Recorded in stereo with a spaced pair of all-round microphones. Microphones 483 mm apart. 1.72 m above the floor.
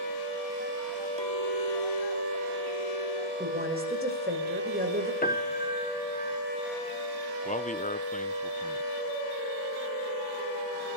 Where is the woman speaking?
20° right (ahead or behind), 6.5 m.